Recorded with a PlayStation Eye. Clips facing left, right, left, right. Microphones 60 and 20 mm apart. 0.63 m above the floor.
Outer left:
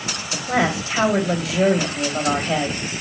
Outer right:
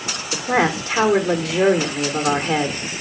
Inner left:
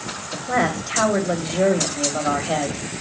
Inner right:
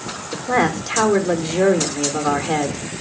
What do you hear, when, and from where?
0.3 s a woman speaking: 50° right (ahead or behind), 1.9 m